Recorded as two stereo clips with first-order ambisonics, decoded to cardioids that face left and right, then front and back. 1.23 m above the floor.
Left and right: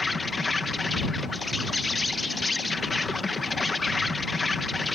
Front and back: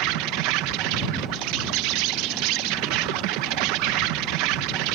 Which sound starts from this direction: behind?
An insect, at 0.0 s.